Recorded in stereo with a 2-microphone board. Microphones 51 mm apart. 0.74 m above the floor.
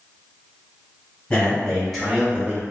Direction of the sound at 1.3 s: 20° left (ahead or behind).